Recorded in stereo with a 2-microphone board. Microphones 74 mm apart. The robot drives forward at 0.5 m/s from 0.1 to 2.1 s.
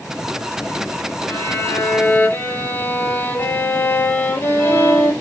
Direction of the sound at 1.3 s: 40° left (ahead or behind).